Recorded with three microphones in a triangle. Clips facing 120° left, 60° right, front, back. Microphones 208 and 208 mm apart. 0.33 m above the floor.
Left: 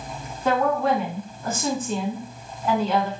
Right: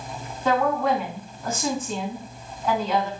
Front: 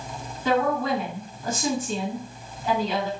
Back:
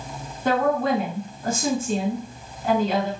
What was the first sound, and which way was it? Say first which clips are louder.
A woman speaking: left 1 dB, back 2 dB; 160° right.